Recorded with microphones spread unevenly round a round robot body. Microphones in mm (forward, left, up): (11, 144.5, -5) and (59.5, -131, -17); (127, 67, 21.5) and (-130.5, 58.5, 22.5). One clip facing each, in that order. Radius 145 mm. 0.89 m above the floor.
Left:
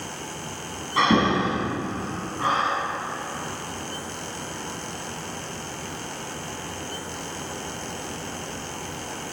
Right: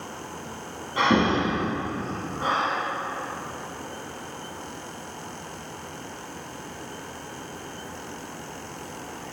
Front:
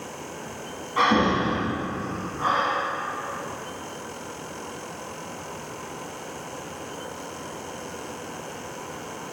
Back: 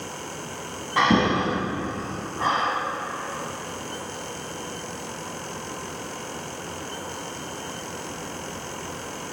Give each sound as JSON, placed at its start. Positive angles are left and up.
{"t": 1.0, "sound": "breathing", "azimuth_deg": 170, "distance_m": 1.2}